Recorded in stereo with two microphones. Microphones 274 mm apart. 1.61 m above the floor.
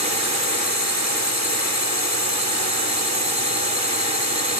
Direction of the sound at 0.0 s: 70° right (ahead or behind).